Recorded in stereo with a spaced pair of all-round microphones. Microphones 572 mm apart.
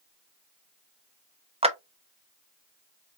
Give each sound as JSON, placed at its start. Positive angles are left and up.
{"t": 1.6, "sound": "a clap", "side_deg": -10, "distance_m": 0.5}